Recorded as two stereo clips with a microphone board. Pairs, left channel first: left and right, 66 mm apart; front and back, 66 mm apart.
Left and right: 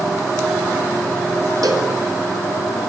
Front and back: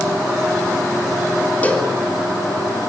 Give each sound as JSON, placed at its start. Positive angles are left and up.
{"t": 1.6, "sound": "a cowbell", "azimuth_deg": -70, "distance_m": 3.5}